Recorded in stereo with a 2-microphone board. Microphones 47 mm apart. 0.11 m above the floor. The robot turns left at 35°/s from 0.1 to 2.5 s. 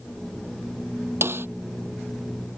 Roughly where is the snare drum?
Right.